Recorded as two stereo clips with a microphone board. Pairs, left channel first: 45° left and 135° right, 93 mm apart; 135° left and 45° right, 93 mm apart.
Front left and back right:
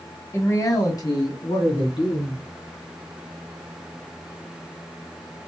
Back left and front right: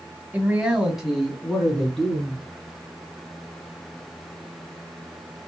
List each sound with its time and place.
0.3 s a man speaking: 20° left, 1.7 m; by 2.4 s 55° left, 3 m